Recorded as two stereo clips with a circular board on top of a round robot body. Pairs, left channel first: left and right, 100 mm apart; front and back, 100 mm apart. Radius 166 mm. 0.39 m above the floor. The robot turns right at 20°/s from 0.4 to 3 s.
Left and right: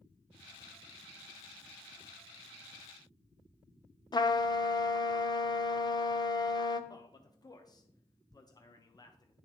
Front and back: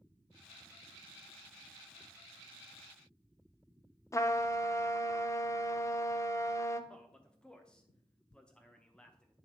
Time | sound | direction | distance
4.1 | a trumpet | 55° left | 0.8 m
6.9 | a man speaking | 75° left | 1.0 m